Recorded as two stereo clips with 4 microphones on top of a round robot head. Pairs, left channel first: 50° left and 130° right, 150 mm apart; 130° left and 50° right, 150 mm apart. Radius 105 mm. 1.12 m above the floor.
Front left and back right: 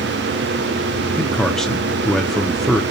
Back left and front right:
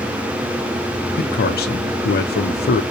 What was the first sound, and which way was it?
A man speaking, 135° left.